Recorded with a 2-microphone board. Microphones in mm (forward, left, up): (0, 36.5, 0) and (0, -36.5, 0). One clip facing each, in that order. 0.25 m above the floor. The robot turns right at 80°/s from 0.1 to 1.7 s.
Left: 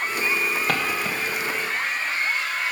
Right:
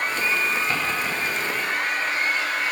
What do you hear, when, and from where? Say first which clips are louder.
0.7 s footsteps: even; 75° left (ahead or behind), 1.5 m; by 1.1 s 40° left (ahead or behind), 1.5 m